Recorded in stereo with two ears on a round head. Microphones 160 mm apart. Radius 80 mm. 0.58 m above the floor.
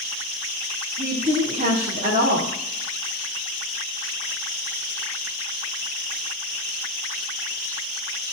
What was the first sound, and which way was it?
A woman speaking, 40° right (ahead or behind).